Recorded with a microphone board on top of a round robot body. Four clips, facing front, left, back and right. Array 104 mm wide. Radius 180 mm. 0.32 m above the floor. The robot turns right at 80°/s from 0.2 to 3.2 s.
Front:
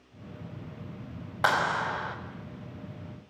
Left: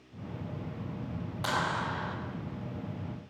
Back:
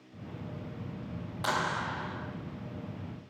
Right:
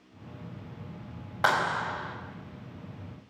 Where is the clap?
50° right, 3 m; by 2.1 s 10° left, 3 m.